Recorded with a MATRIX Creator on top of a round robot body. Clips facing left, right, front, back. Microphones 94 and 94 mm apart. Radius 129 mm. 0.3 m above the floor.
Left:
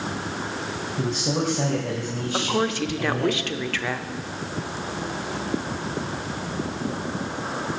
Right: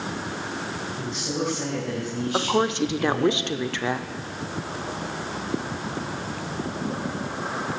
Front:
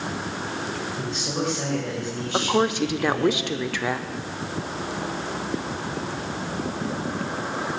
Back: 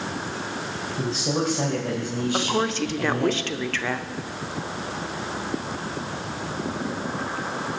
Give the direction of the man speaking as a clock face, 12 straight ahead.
8 o'clock.